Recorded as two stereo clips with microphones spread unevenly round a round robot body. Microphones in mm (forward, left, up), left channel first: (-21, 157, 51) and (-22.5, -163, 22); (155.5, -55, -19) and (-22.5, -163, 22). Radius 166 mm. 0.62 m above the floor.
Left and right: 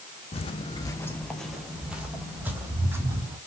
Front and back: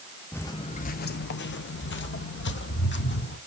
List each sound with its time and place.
0.3 s footsteps: 125° left, 0.6 m; by 3.4 s 5° right, 2 m